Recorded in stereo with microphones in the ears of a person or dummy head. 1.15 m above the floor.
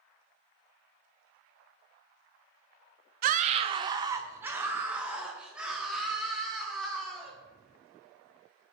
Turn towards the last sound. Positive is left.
turn(degrees=0)  # may be behind; listen again after turning